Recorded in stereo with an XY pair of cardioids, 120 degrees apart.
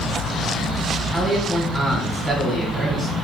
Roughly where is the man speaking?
Ahead.